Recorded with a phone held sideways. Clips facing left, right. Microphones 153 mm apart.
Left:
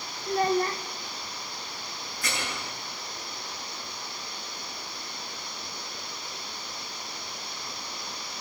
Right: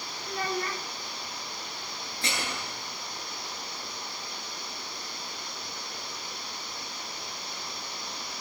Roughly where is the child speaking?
Left.